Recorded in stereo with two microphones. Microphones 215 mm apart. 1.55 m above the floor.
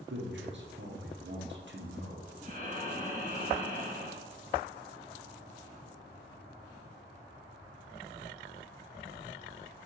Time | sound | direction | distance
0.1 | a man speaking | 65° right (ahead or behind) | 1.0 m
2.4 | breathing | 40° right (ahead or behind) | 0.8 m